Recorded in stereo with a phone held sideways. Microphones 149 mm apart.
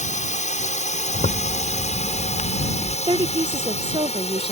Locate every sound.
0.0 s a drone: 55° left (ahead or behind); by 4.5 s 45° left (ahead or behind)
1.1 s a zipper: 55° left (ahead or behind)
3.1 s a woman speaking: 35° right (ahead or behind)